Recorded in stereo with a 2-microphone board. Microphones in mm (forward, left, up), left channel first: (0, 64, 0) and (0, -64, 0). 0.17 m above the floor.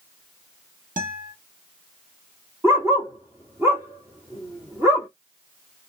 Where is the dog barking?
20° right (ahead or behind), 1.9 m.